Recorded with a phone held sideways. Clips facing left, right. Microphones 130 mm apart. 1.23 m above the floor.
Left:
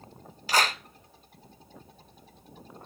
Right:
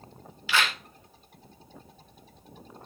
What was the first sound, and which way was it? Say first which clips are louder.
A clap: left 2 dB; 40° left (ahead or behind).